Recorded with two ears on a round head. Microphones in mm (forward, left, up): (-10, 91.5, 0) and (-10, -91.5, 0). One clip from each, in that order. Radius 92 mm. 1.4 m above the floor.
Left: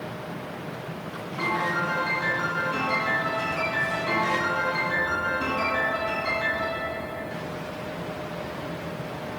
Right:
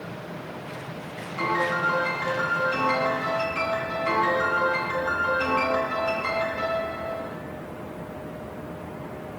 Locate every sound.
1.4 s a piano: 80° right, 7.5 m